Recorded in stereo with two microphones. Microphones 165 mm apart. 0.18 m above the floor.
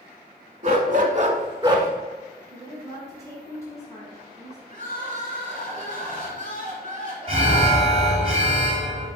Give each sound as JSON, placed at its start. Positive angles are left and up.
{"t": 0.6, "sound": "a dog barking", "side_deg": -45, "distance_m": 0.6}
{"t": 2.5, "sound": "a woman speaking", "side_deg": 20, "distance_m": 1.1}
{"t": 4.7, "sound": "crying", "side_deg": 50, "distance_m": 1.8}
{"t": 7.3, "sound": "an alarm", "side_deg": -35, "distance_m": 1.0}